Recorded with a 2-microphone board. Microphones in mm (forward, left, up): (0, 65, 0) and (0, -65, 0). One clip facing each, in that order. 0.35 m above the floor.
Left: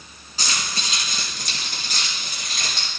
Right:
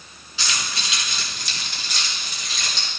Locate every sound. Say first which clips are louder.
0.4 s keys jangling: left 1 dB; 45° left (ahead or behind), 3 m; by 2.9 s 50° left (ahead or behind), 4.5 m